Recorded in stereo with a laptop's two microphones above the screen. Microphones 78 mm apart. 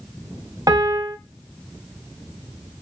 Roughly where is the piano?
Right.